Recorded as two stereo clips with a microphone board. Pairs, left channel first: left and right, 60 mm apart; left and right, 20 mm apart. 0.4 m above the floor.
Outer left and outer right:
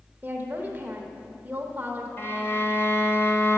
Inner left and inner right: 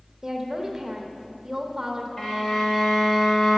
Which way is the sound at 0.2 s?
30° right (ahead or behind).